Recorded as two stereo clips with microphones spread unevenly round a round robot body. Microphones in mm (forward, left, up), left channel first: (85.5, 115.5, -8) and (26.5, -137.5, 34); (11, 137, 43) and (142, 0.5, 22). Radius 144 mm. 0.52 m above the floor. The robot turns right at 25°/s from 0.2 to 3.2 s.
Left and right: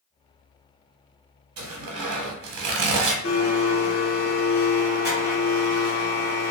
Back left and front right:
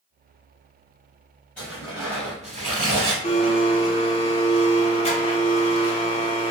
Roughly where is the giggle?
I don't hear a giggle.